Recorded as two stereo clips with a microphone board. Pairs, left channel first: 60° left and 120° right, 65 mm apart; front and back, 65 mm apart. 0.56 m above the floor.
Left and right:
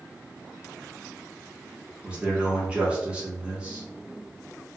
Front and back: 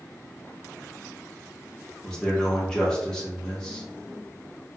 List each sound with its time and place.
2.0 s a man speaking: 70° right, 0.8 m